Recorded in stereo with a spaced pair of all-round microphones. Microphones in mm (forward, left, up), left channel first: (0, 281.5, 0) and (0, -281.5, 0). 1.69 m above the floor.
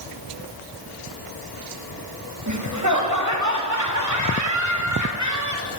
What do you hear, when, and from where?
2.5 s laughter: 30° right (ahead or behind), 3.5 m